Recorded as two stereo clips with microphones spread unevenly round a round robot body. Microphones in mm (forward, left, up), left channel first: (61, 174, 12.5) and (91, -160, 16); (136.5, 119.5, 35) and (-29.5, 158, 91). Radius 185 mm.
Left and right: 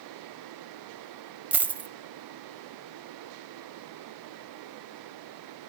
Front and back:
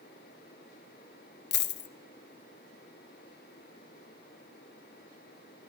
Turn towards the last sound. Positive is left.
turn(degrees=0)